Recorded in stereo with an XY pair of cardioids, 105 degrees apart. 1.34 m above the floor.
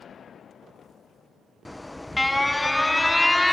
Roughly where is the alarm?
Ahead.